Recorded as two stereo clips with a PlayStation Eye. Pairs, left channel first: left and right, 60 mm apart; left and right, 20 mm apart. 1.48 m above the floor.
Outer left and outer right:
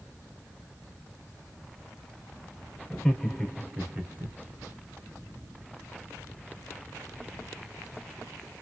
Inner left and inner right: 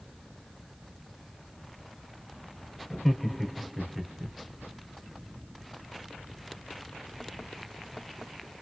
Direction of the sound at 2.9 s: 10° left (ahead or behind).